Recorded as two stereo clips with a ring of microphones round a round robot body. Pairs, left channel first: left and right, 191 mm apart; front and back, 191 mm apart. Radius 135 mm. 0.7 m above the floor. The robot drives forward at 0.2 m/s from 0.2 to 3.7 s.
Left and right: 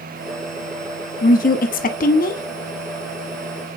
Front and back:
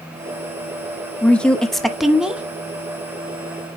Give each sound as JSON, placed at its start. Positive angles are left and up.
{"t": 1.2, "sound": "a woman speaking", "azimuth_deg": 80, "distance_m": 1.2}